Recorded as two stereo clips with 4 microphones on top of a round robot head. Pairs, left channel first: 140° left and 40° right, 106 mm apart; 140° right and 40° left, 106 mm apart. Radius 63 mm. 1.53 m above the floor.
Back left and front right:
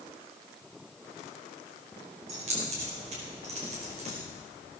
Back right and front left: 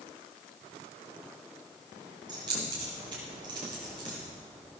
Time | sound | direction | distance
2.3 | keys jangling | 10° right | 4.5 m